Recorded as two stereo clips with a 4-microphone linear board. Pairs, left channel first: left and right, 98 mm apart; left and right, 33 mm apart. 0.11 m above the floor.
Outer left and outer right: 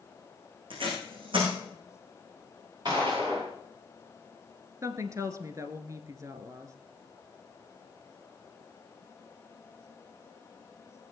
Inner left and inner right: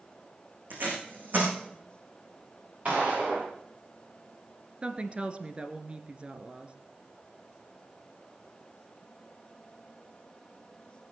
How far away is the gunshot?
About 7.5 m.